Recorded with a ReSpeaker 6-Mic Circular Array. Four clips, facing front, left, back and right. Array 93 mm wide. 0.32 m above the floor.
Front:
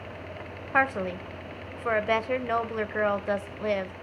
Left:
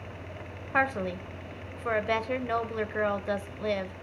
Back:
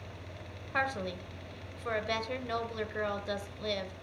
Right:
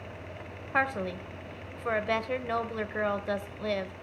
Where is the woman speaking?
10° left, 1.0 m.